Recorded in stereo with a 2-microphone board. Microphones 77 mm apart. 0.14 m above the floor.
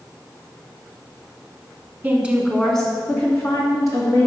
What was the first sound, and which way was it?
A woman speaking, 25° right (ahead or behind).